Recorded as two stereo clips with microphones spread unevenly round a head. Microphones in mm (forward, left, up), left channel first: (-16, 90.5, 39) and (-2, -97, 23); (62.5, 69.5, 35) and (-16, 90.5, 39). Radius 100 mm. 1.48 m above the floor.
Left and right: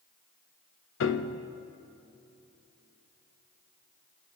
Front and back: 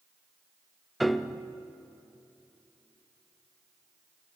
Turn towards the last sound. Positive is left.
turn(degrees=75)